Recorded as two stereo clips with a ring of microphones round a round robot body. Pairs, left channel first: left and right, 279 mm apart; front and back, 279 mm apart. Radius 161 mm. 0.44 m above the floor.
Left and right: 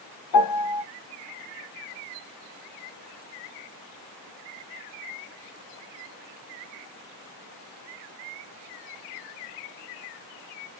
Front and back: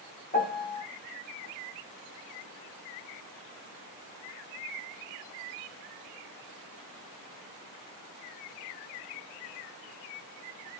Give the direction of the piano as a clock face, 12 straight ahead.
10 o'clock.